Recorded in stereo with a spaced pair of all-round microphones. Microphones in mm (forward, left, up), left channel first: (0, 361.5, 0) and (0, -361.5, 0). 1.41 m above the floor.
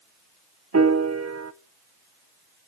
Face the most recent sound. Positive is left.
turn(degrees=-25)  # may be behind; listen again after turning